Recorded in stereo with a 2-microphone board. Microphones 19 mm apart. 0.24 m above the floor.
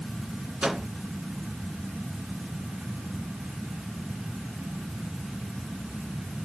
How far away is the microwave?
About 2 m.